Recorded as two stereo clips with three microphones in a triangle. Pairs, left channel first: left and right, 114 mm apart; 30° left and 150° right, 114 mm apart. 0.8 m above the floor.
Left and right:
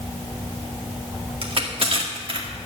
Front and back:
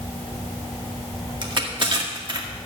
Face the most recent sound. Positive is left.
turn(degrees=-115)